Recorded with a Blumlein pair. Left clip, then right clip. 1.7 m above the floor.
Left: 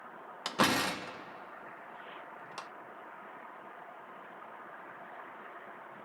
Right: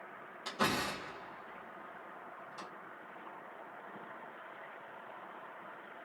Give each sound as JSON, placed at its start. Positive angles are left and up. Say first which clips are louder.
{"t": 0.5, "sound": "a door slam", "louder": "left 5 dB", "azimuth_deg": 35, "distance_m": 1.4}